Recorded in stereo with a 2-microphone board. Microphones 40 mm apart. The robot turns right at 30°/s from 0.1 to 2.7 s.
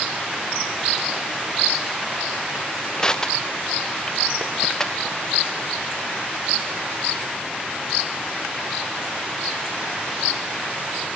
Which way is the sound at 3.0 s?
15° left (ahead or behind).